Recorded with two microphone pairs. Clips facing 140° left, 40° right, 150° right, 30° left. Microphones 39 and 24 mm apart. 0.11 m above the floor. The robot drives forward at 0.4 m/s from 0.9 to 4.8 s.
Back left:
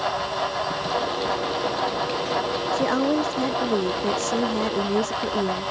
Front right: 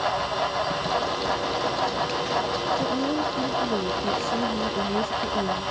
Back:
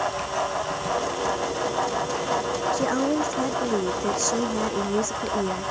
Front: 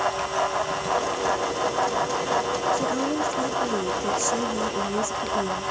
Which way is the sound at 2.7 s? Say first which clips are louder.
Back left 6 dB, back 1 dB; 150° left.